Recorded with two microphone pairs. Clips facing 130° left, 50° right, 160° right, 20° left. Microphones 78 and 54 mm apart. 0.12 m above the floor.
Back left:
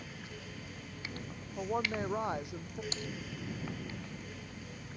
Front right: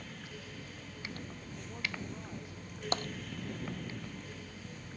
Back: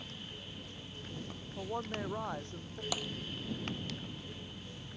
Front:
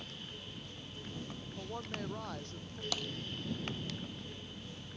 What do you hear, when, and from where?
1.6 s a woman speaking: 135° left
2.9 s tapping: 80° right